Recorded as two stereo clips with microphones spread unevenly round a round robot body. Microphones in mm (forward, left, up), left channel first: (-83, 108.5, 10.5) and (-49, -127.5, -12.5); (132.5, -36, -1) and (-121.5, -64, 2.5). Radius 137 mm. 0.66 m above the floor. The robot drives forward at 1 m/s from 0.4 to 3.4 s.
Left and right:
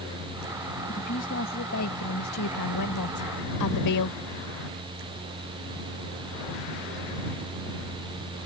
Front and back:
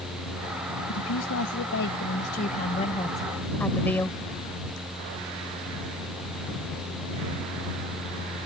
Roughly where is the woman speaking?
Ahead left.